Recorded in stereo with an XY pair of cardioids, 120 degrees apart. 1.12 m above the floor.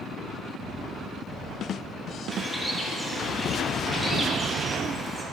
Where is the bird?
10° right, 2.5 m.